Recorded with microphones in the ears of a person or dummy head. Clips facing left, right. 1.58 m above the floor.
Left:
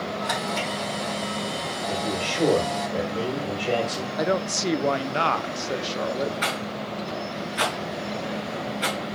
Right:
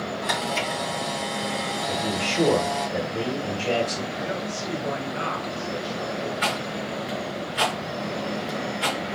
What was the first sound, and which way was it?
A camera shutter, 40° right (ahead or behind).